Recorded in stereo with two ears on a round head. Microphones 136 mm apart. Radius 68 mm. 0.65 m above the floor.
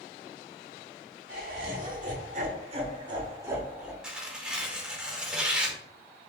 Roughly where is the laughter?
Right.